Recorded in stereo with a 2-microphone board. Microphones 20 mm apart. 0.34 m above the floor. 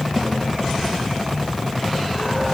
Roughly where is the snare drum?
Right.